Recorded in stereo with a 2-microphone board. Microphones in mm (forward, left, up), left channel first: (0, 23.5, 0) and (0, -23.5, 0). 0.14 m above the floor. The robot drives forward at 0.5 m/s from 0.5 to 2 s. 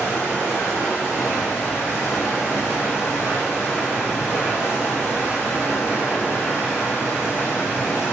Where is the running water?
75° left (ahead or behind), 1.3 m; by 8.1 s 55° left (ahead or behind), 1.6 m.